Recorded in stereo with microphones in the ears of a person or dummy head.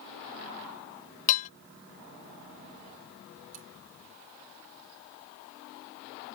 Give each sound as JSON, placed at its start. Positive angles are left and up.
{"t": 1.3, "sound": "dishes clattering", "side_deg": 40}
{"t": 3.5, "sound": "cutlery clinking", "side_deg": -40}